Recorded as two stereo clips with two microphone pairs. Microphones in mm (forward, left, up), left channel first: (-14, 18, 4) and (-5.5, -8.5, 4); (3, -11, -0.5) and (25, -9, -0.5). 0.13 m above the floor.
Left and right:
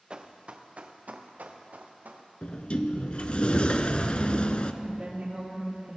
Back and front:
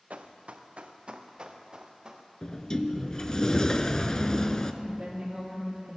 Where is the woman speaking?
40° right, 3 m.